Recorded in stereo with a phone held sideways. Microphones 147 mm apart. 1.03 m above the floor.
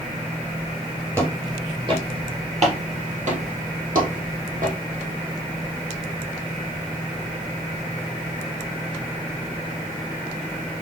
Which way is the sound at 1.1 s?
20° right (ahead or behind).